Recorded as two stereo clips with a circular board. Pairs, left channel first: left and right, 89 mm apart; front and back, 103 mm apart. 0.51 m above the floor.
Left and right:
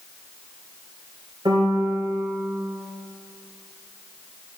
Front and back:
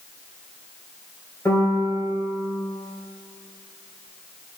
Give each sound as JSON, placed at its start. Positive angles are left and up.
{"t": 1.4, "sound": "a piano", "azimuth_deg": -65, "distance_m": 2.5}